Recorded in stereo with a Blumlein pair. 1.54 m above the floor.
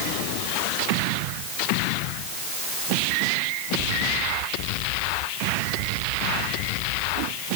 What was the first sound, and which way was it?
Only background noise.